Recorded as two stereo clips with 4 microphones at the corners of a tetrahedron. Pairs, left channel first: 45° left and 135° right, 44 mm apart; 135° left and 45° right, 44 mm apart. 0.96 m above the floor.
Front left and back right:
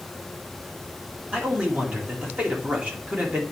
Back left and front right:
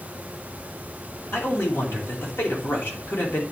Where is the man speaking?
165° left, 2.5 m.